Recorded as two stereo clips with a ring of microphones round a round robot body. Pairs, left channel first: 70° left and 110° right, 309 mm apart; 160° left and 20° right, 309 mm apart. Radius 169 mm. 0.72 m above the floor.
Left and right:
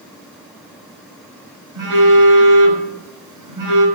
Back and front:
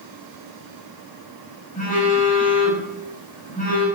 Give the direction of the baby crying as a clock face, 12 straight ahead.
No baby crying in this recording.